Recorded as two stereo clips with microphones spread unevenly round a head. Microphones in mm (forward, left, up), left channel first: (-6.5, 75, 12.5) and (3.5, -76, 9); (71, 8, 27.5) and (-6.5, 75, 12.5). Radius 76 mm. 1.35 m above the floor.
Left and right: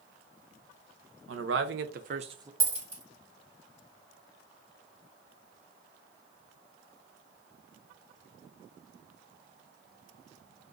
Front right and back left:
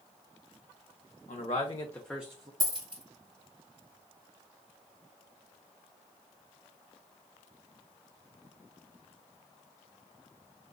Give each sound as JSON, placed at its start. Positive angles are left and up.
{"t": 1.3, "sound": "a man speaking", "azimuth_deg": -90, "distance_m": 0.8}
{"t": 2.6, "sound": "a dropped coin", "azimuth_deg": -160, "distance_m": 2.0}